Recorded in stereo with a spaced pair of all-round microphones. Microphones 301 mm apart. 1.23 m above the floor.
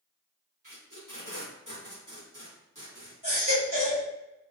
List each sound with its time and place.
0.6 s tape being pulled: 75° right (ahead or behind), 1.4 m
3.2 s a baby crying: 85° right, 1.4 m